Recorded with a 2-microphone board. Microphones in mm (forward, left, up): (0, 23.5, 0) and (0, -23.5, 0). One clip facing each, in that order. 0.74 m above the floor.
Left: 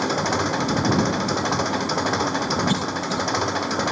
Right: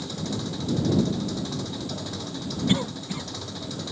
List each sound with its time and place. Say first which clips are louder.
0.0 s an engine running: left 10 dB; 60° left (ahead or behind)
2.7 s a cough: left 3 dB; 20° right (ahead or behind)